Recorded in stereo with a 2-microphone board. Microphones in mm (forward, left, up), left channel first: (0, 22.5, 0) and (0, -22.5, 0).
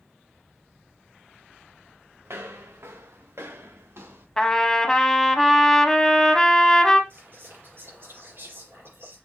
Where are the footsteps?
70° right (ahead or behind), 1.4 m.